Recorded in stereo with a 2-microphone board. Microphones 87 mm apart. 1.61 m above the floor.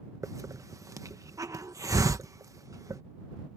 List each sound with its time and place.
0.2 s a hiss: 40° right (ahead or behind)